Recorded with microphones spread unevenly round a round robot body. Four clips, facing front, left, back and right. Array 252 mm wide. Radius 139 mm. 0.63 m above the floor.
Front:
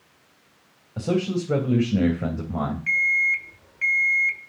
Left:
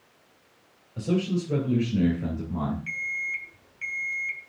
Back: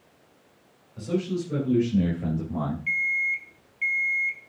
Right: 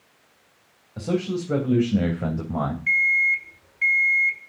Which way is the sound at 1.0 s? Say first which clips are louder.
Right 1 dB, front 3 dB; 20° right.